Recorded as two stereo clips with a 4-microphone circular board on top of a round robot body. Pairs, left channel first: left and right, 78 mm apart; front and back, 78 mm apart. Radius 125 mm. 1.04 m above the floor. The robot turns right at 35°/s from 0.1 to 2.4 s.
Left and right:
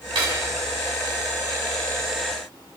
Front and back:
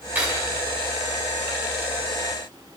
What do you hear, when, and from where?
0.1 s cutlery clinking: 110° right, 5.5 m; by 0.5 s 95° right, 5.5 m